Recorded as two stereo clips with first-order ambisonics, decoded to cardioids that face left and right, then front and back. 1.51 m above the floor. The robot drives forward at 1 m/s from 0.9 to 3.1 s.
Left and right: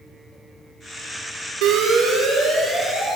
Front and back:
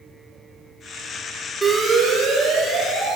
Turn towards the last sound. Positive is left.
turn(degrees=-160)